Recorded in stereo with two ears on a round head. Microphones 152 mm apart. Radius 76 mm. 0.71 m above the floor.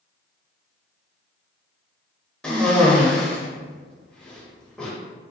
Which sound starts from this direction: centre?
A cough, at 2.4 s.